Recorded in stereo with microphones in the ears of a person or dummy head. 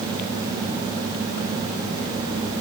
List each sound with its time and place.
Only background noise.